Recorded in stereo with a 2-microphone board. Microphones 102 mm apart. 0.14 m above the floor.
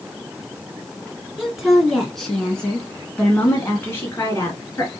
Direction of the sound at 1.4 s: 5° right (ahead or behind).